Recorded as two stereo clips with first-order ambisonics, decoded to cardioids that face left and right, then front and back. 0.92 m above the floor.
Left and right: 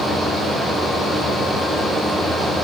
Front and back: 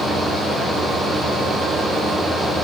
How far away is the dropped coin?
No dropped coin in this recording.